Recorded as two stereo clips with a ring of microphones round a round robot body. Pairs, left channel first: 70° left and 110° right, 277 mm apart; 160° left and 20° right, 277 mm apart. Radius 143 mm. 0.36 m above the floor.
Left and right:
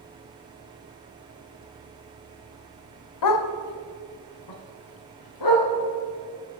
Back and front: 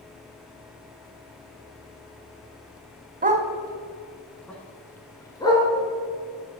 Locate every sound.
3.2 s a dog barking: 40° left, 0.7 m; by 5.7 s 80° left, 1.8 m